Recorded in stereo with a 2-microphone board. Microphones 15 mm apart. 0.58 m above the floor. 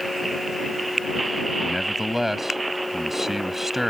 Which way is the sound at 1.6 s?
20° right (ahead or behind).